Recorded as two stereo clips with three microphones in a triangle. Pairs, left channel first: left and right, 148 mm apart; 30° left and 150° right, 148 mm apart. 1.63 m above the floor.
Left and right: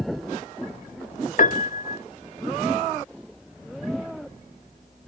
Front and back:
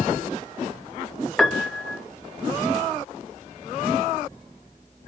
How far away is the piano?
About 0.5 m.